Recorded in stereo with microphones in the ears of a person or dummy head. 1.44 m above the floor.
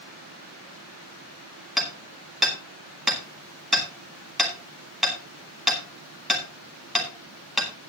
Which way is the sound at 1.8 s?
Centre (ahead or behind).